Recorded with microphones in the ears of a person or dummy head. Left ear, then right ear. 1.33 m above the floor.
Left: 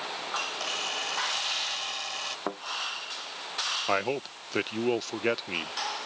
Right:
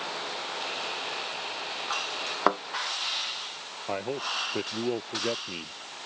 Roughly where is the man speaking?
Left.